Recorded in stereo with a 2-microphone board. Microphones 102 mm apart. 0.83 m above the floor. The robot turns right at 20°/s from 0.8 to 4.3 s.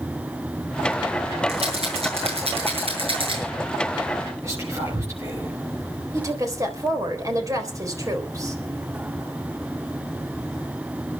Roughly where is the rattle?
Right.